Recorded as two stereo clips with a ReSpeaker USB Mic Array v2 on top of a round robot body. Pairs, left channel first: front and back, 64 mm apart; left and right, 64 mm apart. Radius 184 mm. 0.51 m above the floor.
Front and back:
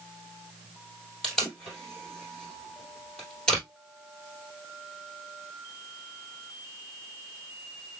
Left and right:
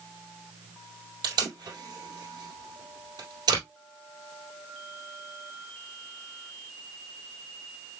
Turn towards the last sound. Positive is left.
turn(degrees=-80)